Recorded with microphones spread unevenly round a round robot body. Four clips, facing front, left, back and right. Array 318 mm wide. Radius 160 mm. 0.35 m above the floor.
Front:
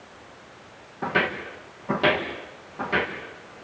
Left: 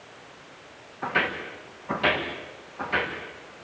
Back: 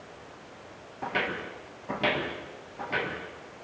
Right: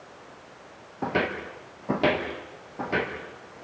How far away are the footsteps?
About 4 m.